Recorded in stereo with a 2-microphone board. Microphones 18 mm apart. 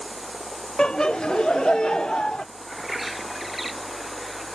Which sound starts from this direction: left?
Laughter, at 0.8 s.